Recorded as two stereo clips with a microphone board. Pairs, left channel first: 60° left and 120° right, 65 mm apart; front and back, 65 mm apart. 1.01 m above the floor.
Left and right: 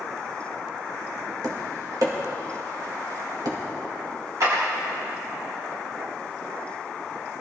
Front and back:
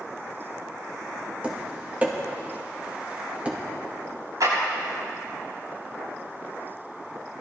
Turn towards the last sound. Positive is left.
turn(degrees=-155)